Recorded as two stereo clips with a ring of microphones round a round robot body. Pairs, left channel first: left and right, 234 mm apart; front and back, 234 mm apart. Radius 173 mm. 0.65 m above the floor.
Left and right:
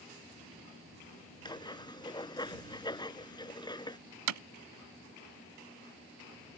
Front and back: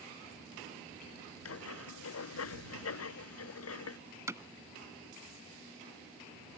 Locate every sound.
1.4 s writing: 20° left
4.3 s hammering: 100° right